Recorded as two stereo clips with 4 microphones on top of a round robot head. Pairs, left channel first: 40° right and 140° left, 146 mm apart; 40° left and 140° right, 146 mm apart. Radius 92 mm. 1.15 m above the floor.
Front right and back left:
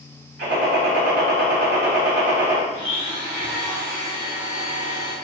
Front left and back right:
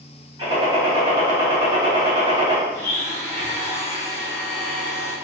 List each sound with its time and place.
0.4 s a gunshot: 160° left, 2.0 m
2.7 s a blender: 110° left, 2.0 m